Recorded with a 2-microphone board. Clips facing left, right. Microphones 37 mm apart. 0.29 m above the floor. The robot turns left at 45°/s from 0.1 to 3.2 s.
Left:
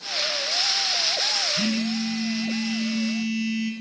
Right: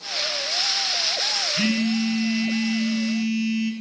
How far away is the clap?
No clap in this recording.